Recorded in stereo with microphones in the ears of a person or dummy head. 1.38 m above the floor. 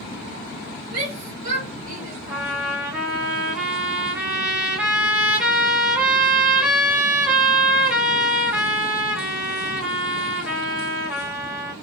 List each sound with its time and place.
0.9 s a shout: 30° right (ahead or behind), 2.5 m
2.3 s a trumpet: 10° right (ahead or behind), 2 m